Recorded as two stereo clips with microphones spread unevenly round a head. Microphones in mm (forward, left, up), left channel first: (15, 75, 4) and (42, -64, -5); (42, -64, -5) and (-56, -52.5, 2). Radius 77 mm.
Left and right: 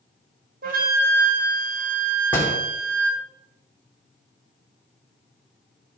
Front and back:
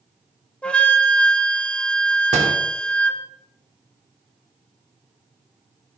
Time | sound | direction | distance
0.6 | a flute | 85° right | 1.6 m
2.3 | a door slam | straight behind | 2.5 m